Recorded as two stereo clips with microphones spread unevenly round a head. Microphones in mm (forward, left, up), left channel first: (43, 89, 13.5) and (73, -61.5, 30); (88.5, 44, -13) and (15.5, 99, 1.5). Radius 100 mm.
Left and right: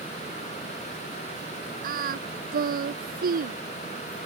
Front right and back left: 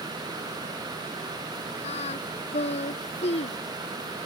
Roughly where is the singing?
Ahead right.